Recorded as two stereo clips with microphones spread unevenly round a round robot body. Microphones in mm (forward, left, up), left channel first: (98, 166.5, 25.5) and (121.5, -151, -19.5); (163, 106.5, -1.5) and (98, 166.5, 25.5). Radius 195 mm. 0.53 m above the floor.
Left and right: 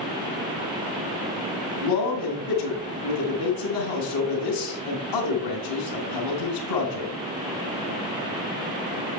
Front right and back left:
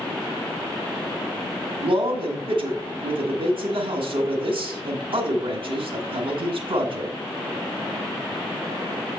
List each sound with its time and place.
1.8 s a man speaking: 115° left, 1.7 m